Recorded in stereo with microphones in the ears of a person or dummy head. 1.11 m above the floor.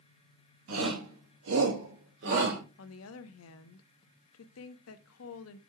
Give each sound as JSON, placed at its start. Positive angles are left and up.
{"t": 0.7, "sound": "a shout", "side_deg": -80, "distance_m": 3.0}
{"t": 2.8, "sound": "a woman speaking", "side_deg": 70, "distance_m": 0.7}